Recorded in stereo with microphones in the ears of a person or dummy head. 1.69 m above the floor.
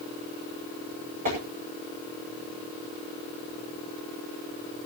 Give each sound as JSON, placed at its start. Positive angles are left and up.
{"t": 1.2, "sound": "tapping", "side_deg": -40, "distance_m": 9.5}